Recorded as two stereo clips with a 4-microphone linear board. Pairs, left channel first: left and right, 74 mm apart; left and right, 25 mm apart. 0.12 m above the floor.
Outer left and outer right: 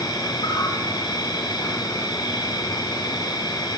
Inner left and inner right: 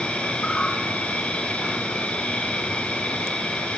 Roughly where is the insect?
Left.